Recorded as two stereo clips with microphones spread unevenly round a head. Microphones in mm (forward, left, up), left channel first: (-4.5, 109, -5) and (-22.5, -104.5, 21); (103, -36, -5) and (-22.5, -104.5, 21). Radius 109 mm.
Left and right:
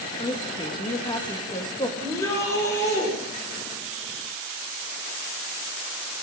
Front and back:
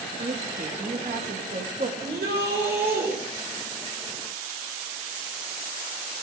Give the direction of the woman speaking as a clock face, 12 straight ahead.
7 o'clock.